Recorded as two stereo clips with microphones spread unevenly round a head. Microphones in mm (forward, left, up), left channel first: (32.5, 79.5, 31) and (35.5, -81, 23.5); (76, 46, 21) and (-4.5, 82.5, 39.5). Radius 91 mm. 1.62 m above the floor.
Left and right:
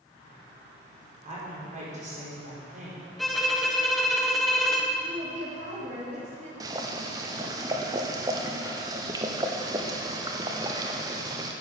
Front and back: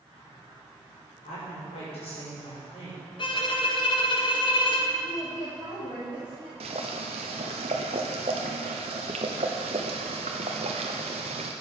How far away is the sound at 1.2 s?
About 5 m.